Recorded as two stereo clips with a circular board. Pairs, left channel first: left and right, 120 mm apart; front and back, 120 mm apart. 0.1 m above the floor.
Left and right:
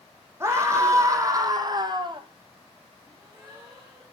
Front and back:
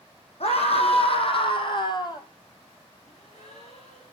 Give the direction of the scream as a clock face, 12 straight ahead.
1 o'clock.